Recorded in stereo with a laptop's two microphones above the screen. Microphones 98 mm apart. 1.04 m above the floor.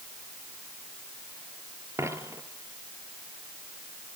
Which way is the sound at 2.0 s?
30° right (ahead or behind).